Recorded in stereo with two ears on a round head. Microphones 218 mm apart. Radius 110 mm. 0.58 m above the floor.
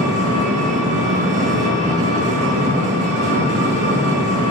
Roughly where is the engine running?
Right.